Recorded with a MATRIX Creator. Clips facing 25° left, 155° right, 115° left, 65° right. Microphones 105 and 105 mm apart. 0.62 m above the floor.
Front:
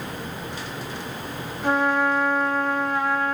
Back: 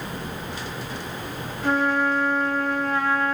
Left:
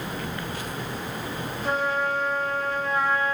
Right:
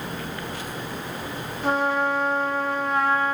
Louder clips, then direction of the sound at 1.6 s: Front 1 dB, right 3 dB; 50° right.